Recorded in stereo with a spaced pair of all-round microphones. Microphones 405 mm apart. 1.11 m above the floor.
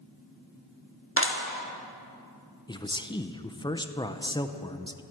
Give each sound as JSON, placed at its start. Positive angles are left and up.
{"t": 1.2, "sound": "a clap", "side_deg": 30, "distance_m": 1.4}
{"t": 2.7, "sound": "a man speaking", "side_deg": 10, "distance_m": 0.7}